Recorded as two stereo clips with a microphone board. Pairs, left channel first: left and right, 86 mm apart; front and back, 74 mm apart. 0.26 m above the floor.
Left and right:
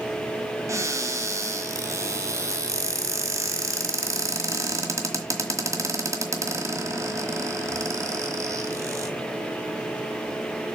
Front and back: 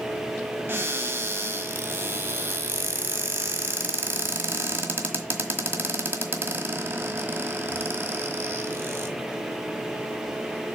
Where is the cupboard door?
130° right, 1.5 m.